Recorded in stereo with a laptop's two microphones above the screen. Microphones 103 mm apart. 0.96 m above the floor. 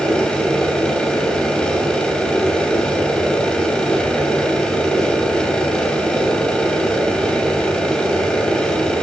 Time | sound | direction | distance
0.0 | a machine running | 10° left (ahead or behind) | 2.5 m